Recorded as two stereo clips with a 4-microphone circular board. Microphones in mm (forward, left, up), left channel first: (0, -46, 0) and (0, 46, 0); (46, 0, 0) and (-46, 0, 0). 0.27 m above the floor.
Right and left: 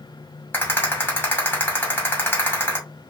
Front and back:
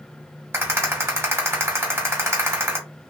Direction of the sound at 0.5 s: 135° right.